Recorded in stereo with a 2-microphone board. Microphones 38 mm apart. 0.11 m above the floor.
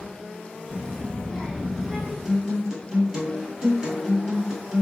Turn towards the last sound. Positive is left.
turn(degrees=0)  # may be behind; listen again after turning